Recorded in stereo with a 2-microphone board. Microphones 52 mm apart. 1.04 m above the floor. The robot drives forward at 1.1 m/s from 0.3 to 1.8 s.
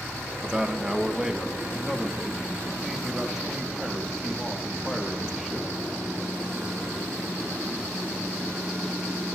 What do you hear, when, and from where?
0.4 s a man speaking: 20° right (ahead or behind), 0.9 m; by 5.7 s 10° right (ahead or behind), 2 m